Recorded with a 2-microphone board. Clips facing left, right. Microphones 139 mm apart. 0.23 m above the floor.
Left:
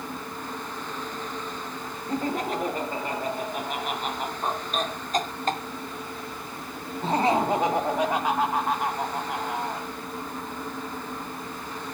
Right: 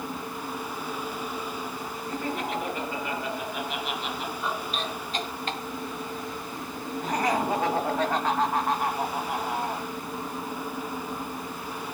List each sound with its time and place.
2.1 s laughter: 35° left (ahead or behind), 3.5 m; by 9.9 s 5° right (ahead or behind), 2 m